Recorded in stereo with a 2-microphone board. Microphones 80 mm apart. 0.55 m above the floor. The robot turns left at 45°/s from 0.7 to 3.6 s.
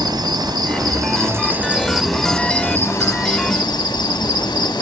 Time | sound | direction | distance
0.0 | an insect | 115° right | 0.7 m